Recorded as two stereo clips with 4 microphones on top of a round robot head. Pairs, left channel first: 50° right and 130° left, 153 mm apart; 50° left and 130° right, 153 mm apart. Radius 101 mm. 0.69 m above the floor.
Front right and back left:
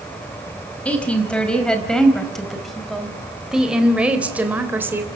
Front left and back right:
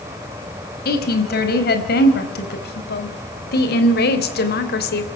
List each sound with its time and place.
0.8 s a woman speaking: 30° left, 5 m; by 5.1 s 55° left, 3 m